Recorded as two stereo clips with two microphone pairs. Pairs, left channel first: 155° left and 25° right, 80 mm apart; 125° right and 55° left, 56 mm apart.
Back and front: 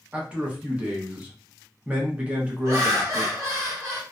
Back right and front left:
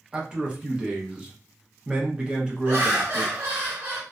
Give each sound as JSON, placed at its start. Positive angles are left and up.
{"t": 0.1, "sound": "a man speaking", "azimuth_deg": 20, "distance_m": 0.7}
{"t": 2.6, "sound": "laughter", "azimuth_deg": 15, "distance_m": 1.3}